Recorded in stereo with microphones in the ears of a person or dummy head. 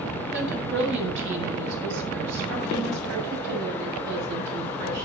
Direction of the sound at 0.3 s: 65° right (ahead or behind).